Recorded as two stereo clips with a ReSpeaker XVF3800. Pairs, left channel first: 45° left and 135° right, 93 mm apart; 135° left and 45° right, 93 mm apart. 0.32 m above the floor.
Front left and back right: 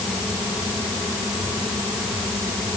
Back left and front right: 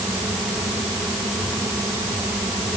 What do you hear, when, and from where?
Only background noise.